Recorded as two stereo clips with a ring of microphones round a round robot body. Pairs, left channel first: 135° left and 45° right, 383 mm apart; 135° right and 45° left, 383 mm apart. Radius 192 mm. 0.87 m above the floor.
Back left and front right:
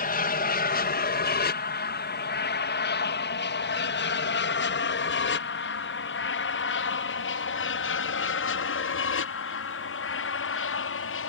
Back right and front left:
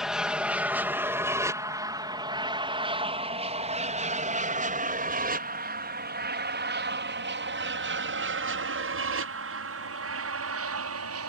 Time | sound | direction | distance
0.0 | an aircraft | 130° left | ?